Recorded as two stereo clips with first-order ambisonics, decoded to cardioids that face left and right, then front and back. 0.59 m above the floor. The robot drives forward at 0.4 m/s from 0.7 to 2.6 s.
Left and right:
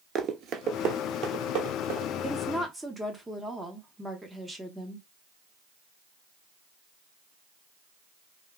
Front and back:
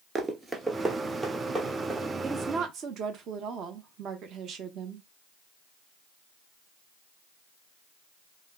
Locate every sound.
0.1 s running footsteps: 115° right, 0.6 m; by 2.1 s 95° right, 1.4 m
2.2 s a woman speaking: 160° right, 0.7 m; by 5.1 s 165° right, 0.8 m